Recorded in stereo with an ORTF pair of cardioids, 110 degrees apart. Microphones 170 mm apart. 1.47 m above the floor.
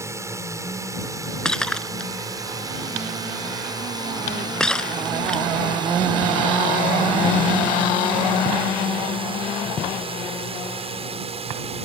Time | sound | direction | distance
0.0 | a drone | 15° right | ?
1.4 | breaking glass | 5° left | ?